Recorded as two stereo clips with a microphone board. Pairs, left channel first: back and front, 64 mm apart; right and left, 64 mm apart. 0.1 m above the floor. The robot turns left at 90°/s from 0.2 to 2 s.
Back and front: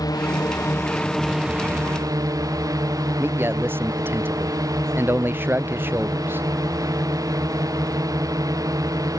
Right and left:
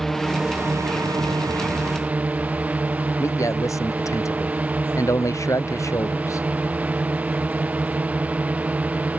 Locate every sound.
0.0 s a drone: 175° right; by 9.2 s 20° left
3.2 s a man speaking: 55° right